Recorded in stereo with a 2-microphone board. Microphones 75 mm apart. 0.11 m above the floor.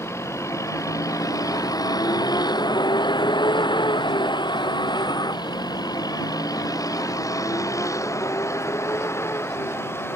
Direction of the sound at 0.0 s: 35° left (ahead or behind).